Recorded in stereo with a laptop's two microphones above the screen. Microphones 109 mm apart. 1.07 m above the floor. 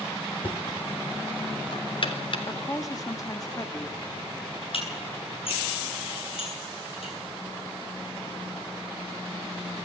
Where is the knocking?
55° left (ahead or behind), 3.5 m.